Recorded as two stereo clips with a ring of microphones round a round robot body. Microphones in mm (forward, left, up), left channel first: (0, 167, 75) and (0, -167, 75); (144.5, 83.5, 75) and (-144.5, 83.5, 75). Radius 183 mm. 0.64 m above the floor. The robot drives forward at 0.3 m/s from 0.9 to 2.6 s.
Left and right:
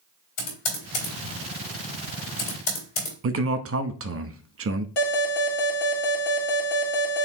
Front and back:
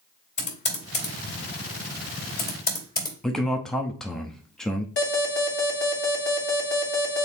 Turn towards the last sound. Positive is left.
turn(degrees=50)